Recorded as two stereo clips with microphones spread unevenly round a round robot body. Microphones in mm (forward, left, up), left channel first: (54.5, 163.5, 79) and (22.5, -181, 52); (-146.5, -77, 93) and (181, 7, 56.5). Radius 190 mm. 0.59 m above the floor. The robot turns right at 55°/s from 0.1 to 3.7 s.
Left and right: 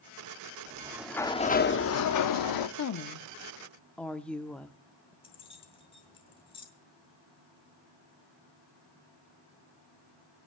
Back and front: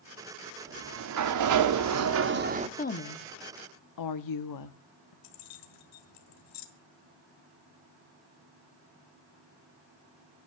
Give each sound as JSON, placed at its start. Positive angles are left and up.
{"t": 0.7, "sound": "a sliding door", "azimuth_deg": -30, "distance_m": 1.2}
{"t": 2.8, "sound": "a woman speaking", "azimuth_deg": 125, "distance_m": 1.0}
{"t": 5.2, "sound": "keys jangling", "azimuth_deg": 160, "distance_m": 1.9}